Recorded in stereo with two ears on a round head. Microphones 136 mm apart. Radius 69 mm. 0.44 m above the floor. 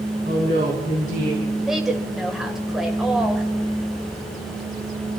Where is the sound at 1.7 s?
5° right (ahead or behind), 1.9 m.